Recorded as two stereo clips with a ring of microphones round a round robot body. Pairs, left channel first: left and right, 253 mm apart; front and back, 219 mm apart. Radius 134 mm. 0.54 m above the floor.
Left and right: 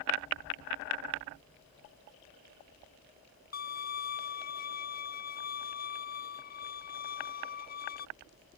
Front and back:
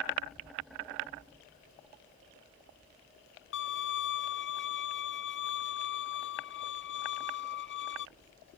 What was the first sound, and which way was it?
A violin, 35° left.